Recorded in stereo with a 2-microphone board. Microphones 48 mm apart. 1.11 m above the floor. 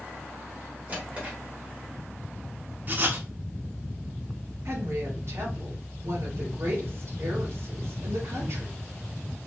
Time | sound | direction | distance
0.9 | a drawer | 30° right (ahead or behind) | 1.9 m
2.9 | writing | 40° right (ahead or behind) | 0.9 m
4.7 | a woman speaking | 65° right (ahead or behind) | 1.9 m